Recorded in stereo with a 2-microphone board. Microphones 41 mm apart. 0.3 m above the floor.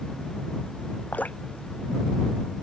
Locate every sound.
1.1 s dripping: 40° left (ahead or behind)